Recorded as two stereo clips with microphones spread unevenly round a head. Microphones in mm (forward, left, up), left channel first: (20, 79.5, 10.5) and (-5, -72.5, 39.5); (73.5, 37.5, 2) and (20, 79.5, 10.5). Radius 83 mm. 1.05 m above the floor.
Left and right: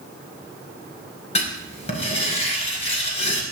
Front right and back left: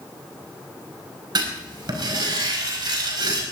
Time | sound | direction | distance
1.4 | writing | 135° left | 4.5 m